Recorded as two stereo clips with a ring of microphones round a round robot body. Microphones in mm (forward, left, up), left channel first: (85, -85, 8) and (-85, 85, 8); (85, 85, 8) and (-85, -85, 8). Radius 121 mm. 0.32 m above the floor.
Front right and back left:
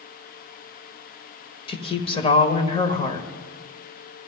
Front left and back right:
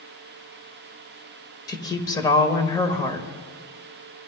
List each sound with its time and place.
1.7 s a woman speaking: 10° right, 1.3 m